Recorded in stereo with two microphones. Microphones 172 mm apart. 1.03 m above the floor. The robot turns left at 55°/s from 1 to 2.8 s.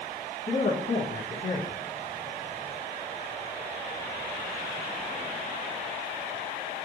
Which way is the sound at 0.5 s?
95° left.